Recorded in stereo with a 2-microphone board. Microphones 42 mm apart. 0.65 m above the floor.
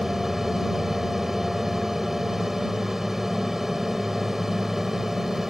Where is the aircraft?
10° right (ahead or behind).